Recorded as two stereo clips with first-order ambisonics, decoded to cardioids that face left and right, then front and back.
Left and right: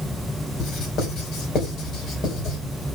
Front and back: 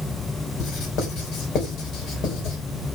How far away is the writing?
About 4.5 m.